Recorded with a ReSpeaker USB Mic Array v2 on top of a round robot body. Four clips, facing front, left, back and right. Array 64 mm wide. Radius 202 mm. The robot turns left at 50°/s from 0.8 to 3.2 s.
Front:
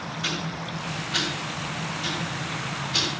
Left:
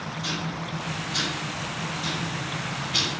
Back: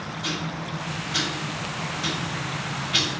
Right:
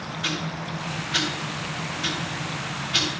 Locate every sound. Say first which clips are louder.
0.2 s ticking: right 3 dB, back 1 dB; 65° right, 5 m; by 3.1 s straight behind, 5 m